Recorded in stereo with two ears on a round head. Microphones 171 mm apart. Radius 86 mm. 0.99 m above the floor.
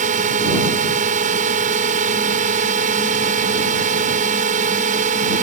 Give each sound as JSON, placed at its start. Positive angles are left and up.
{"t": 0.0, "sound": "a drone", "side_deg": -45}